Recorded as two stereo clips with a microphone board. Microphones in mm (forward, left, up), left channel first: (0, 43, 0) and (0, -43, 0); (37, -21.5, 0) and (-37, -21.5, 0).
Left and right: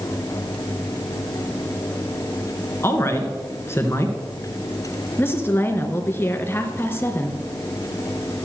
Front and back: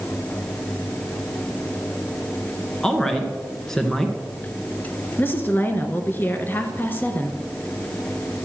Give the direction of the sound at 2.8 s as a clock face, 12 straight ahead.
9 o'clock.